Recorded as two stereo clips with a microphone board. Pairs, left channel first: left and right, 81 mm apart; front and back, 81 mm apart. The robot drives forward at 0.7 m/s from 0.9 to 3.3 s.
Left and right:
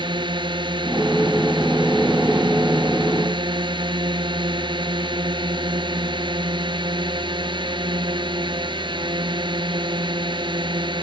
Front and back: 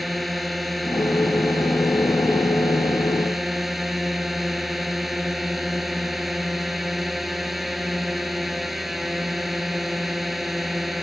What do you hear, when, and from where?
0.0 s a drone: 90° right